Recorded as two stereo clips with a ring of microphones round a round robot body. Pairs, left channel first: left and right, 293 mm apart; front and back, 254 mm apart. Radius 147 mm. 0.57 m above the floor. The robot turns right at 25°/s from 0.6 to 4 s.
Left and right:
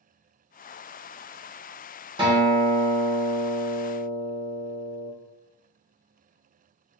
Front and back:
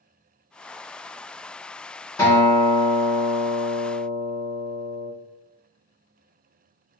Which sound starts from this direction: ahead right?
A guitar, at 2.2 s.